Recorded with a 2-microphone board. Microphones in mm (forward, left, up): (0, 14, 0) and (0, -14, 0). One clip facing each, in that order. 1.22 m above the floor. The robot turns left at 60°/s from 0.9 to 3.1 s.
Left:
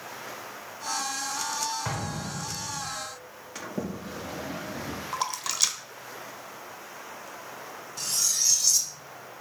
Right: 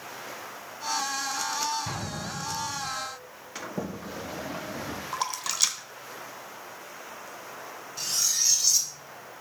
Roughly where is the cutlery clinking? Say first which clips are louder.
Even; centre.